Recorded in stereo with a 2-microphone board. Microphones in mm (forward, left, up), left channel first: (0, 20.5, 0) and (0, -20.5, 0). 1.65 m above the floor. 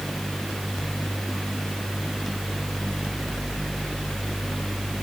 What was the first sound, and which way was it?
Only background noise.